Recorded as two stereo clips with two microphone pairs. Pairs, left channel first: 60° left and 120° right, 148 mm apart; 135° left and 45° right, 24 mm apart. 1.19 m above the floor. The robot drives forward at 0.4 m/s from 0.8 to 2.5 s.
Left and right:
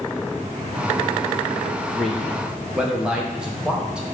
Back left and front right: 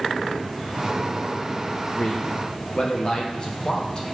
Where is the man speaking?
145° left, 0.6 m; by 4.1 s 160° left, 0.7 m.